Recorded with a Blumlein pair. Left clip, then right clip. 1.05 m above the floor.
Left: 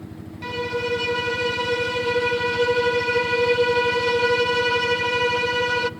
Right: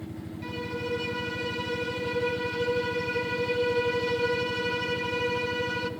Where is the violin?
65° left, 0.6 m.